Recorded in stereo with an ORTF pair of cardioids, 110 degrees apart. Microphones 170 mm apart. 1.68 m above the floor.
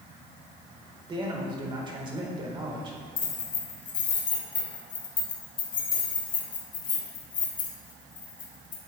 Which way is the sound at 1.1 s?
30° right.